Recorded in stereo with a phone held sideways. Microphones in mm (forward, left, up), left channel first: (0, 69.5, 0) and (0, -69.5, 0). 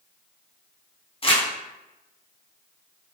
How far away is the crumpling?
About 0.6 m.